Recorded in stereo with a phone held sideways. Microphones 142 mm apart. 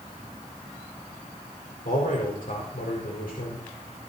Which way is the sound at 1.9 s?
80° left.